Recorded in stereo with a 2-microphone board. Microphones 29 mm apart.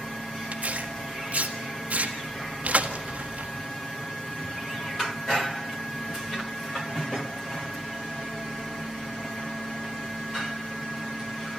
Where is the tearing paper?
60° right (ahead or behind), 1.7 m.